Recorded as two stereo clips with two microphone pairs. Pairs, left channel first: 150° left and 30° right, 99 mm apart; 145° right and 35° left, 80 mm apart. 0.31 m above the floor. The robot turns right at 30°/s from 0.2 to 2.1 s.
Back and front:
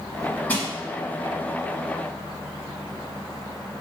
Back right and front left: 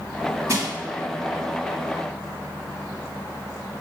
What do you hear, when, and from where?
0.5 s crushing: 80° left, 0.7 m; by 0.7 s 85° left, 0.7 m